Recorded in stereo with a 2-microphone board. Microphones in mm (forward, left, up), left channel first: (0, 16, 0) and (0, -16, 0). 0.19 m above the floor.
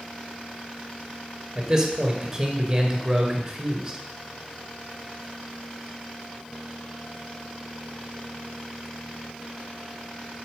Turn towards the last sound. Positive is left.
turn(degrees=-15)  # may be behind; listen again after turning